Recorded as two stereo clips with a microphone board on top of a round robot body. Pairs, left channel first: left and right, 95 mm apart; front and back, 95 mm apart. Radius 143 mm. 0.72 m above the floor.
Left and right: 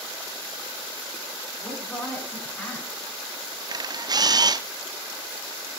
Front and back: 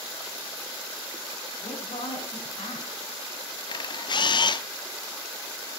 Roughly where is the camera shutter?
Ahead right.